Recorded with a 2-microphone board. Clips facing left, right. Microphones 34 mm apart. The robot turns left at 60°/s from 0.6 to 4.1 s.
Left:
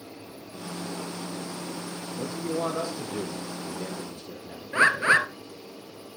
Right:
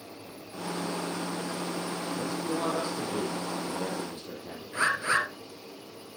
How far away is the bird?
About 1.2 m.